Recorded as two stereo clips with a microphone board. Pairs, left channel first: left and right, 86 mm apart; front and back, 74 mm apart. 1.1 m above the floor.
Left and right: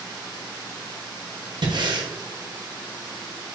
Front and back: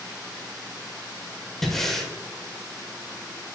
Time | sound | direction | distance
1.6 | breathing | 85° right | 1.3 m